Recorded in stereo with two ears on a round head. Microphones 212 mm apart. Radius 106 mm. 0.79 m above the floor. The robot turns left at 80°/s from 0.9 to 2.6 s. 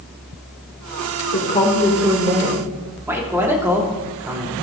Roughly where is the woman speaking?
Ahead left.